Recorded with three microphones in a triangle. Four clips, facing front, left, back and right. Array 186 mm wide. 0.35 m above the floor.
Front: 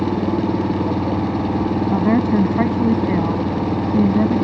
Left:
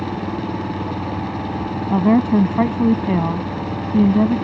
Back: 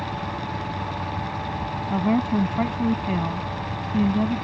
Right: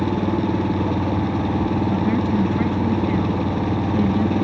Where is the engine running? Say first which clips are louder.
Right 4 dB, front 11 dB; 25° right.